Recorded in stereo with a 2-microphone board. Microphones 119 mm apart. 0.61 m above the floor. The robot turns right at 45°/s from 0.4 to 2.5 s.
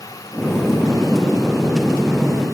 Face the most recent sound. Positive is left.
No sound to turn to.